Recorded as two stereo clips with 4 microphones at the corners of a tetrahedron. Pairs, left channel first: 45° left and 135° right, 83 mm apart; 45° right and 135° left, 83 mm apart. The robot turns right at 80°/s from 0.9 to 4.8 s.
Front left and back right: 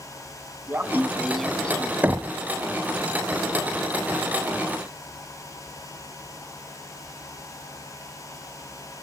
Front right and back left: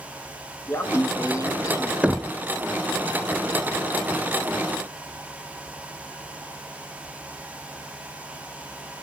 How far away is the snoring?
No snoring in this recording.